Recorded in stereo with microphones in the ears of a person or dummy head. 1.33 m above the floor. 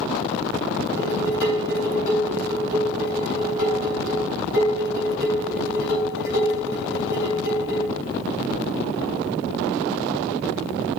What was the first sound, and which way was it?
Dishes clattering, 70° left (ahead or behind).